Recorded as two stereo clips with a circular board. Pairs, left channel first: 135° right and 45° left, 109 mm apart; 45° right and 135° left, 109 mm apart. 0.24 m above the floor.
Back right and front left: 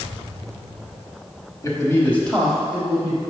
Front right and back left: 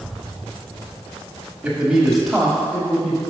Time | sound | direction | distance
1.6 | a man speaking | 160° right | 1.3 m